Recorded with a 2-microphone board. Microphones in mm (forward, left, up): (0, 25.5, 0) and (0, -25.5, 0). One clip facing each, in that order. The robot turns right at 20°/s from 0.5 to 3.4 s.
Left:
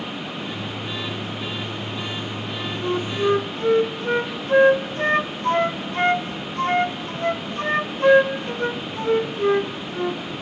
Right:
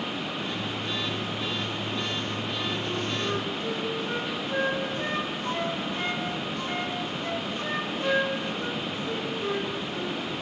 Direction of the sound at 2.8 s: 55° left (ahead or behind).